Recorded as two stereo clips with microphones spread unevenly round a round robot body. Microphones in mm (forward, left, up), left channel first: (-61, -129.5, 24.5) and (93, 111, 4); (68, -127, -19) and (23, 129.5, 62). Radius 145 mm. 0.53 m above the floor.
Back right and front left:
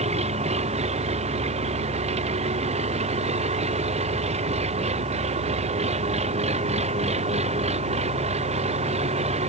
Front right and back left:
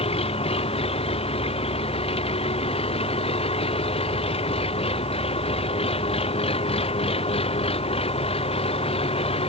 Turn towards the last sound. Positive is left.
turn(degrees=-10)